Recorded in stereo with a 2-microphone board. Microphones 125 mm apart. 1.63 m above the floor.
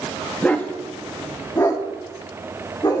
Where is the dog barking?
10° left (ahead or behind), 1.0 m; by 3.0 s 35° left (ahead or behind), 2 m.